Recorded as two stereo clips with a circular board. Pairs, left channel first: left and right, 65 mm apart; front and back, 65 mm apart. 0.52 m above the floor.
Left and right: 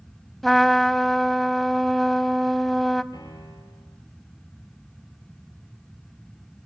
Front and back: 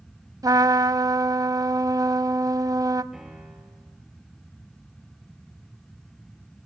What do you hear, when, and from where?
0.4 s a trumpet: 175° left, 0.8 m
3.1 s a piano: 95° left, 3.5 m